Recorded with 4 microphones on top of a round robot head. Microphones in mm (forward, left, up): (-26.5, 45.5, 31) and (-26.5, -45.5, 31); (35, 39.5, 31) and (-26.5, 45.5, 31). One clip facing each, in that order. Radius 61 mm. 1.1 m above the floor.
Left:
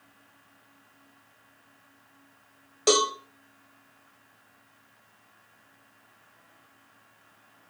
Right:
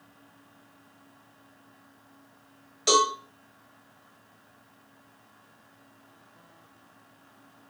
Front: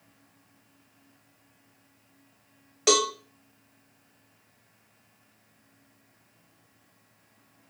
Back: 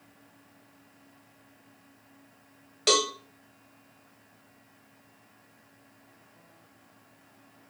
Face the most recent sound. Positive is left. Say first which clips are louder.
# right 1 dB, front 2 dB
turn(degrees=65)